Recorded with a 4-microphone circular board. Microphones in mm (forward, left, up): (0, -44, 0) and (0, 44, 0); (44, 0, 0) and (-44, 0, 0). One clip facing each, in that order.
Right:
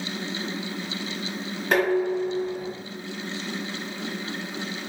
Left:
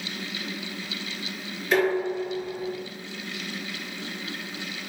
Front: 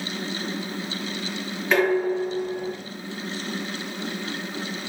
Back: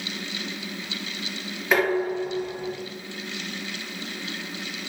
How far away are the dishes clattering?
About 1.5 m.